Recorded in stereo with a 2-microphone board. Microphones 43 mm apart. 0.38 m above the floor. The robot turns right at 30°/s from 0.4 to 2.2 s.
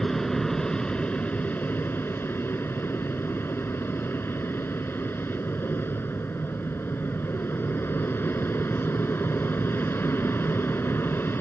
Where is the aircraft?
10° left; by 11.4 s 65° left.